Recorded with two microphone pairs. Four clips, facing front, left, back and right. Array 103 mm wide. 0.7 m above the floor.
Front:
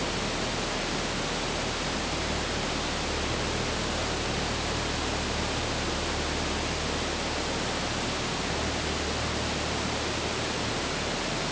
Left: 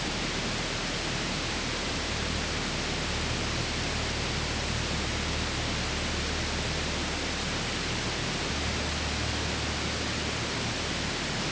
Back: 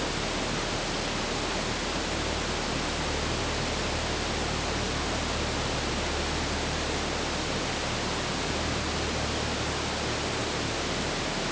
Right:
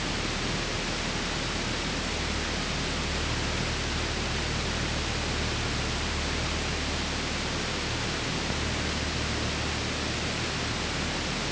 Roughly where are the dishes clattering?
No dishes clattering in this recording.